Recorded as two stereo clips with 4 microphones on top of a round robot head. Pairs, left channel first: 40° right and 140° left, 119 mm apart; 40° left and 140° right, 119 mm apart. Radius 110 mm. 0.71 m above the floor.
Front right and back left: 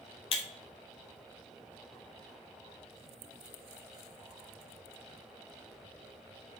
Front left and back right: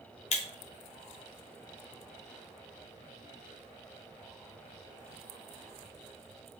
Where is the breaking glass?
5° left, 0.7 m.